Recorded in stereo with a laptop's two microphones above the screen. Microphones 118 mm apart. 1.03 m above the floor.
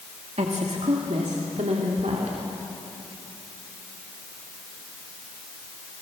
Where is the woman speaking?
70° right (ahead or behind), 1.8 m; by 2.4 s 80° right, 3 m.